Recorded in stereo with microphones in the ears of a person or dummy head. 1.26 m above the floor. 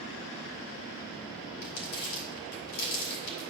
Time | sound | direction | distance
1.6 | crumpling | 80° left | 3.5 m